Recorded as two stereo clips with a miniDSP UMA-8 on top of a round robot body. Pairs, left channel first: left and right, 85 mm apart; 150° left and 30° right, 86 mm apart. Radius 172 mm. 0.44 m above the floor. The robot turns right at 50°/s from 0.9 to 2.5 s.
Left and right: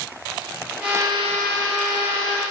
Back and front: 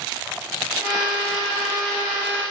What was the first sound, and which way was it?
Only background noise.